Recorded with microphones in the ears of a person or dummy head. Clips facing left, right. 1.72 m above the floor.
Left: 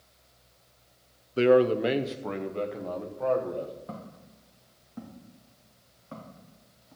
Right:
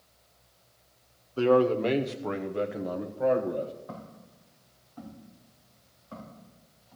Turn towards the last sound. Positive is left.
turn(degrees=50)  # may be behind; listen again after turning